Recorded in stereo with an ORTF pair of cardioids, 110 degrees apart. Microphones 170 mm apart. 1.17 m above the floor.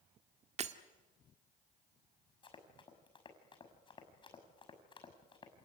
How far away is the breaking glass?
About 1.8 m.